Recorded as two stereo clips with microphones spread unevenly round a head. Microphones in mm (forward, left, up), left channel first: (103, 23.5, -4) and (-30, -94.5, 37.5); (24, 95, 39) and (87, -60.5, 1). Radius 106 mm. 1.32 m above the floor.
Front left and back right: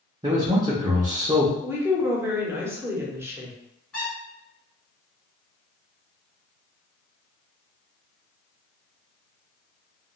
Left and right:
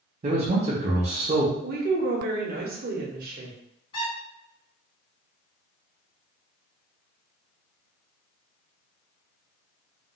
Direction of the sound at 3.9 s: 140° left.